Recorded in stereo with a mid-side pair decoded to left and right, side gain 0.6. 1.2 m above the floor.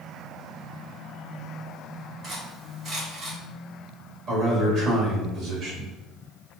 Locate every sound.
2.2 s cutlery clinking: 50° right, 2.0 m
4.3 s a man speaking: 55° right, 1.8 m